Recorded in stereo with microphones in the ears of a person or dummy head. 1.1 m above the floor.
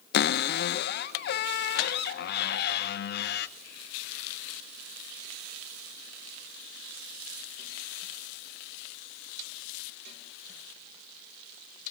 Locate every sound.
0.1 s a cupboard door: 55° left (ahead or behind), 0.5 m